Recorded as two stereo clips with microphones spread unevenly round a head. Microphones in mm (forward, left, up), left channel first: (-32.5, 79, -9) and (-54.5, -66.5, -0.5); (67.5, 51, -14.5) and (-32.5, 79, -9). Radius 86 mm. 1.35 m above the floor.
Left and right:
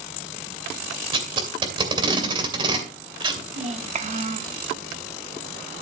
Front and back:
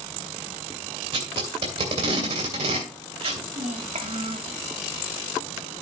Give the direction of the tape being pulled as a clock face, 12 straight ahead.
5 o'clock.